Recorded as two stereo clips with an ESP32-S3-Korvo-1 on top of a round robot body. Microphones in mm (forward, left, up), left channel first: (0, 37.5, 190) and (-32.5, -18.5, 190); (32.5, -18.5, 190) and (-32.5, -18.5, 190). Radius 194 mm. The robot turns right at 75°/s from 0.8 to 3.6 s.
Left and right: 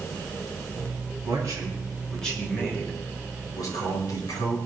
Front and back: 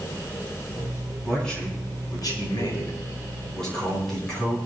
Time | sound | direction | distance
1.2 | a man speaking | 100° right | 10 m